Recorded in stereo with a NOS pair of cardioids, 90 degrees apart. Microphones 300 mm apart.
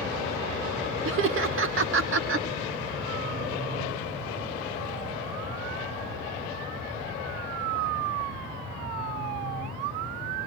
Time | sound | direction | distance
1.1 | laughter | 45° right | 1.4 m